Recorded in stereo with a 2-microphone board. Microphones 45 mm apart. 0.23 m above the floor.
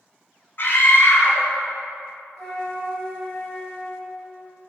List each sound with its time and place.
0.6 s a scream: 50° left (ahead or behind), 2 m
2.4 s a flute: 10° left (ahead or behind), 3 m